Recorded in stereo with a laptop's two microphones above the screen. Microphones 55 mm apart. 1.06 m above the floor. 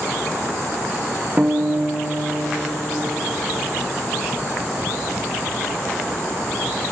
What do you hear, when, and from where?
1.4 s a guitar: 25° right (ahead or behind), 0.5 m